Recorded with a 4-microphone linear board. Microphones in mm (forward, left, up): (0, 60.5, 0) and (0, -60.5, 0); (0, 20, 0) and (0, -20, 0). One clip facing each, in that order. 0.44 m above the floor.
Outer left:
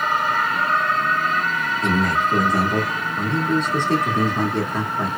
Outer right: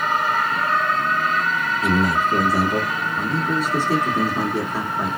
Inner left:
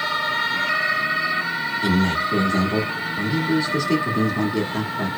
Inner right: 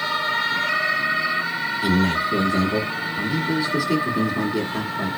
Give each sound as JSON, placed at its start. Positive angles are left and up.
{"t": 1.8, "sound": "a man speaking", "side_deg": -10, "distance_m": 1.4}